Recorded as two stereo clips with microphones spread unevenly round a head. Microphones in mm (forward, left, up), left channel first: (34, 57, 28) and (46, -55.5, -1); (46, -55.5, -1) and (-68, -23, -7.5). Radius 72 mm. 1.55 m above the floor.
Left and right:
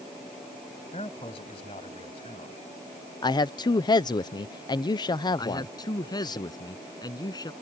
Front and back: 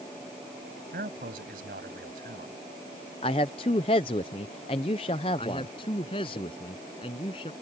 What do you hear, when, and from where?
0.9 s a man speaking: 150° left
3.2 s a man speaking: 40° left
5.4 s a man speaking: 45° left